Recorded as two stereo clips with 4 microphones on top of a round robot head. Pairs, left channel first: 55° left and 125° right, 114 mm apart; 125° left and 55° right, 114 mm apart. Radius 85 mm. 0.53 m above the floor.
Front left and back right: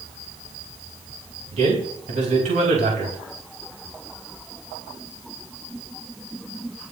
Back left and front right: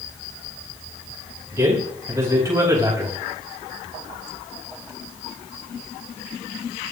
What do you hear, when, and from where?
1.5 s a man speaking: 120° right, 4.5 m